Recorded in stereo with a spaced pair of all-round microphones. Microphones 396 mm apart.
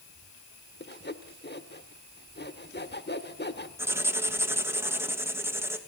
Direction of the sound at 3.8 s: 5° right (ahead or behind).